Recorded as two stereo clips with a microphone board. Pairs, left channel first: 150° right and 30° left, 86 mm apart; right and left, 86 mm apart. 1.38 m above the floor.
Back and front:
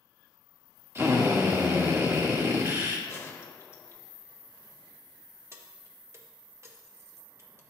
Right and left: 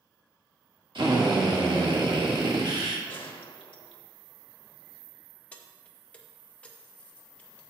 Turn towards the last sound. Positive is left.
turn(degrees=-20)